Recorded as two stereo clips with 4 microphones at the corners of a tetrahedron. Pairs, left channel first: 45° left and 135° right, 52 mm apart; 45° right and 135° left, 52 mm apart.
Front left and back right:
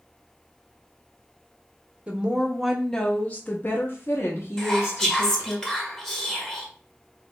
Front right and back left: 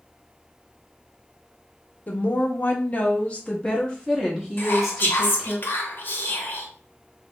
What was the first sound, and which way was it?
A woman speaking, 85° right.